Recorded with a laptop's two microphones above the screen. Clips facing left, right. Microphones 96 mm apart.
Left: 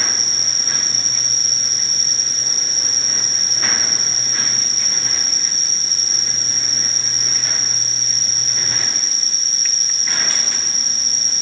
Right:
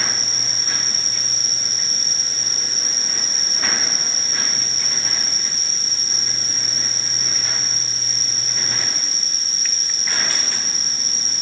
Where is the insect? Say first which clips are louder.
Even; 55° right (ahead or behind), 7.5 m.